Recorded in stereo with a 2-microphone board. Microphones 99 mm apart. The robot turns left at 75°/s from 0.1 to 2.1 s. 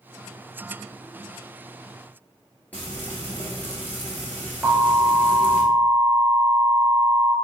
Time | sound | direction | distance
2.7 | frying | 20° left (ahead or behind) | 1.4 m
4.6 | an alarm | 20° right (ahead or behind) | 1.7 m